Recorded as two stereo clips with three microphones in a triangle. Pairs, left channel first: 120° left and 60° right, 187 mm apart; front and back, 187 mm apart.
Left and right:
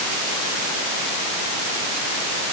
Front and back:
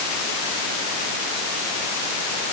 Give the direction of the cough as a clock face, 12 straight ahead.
No cough in this recording.